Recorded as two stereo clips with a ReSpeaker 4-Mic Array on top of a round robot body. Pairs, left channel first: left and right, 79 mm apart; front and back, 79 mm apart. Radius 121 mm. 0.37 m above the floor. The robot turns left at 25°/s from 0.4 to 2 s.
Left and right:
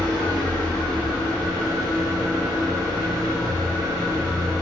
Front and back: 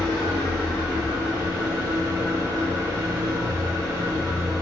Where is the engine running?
90° right, 1.4 m; by 4.6 s 130° right, 1.4 m.